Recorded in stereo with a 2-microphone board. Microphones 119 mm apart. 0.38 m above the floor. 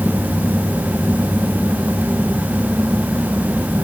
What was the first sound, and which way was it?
Only background noise.